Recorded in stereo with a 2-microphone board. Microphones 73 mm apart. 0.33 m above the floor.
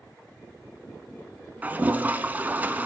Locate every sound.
1.6 s a toilet flushing: 20° right (ahead or behind), 0.6 m